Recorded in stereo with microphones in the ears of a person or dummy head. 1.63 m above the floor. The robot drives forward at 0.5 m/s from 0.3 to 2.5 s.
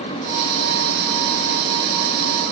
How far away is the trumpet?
I don't hear a trumpet.